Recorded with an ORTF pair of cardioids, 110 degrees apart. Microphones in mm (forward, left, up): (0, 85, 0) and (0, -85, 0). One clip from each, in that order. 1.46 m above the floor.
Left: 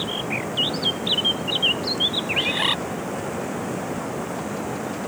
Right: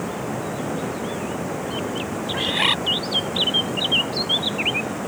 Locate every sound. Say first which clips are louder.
0.0 s running water: left 2 dB; 5° right
2.3 s a bird: right 5 dB; 10° right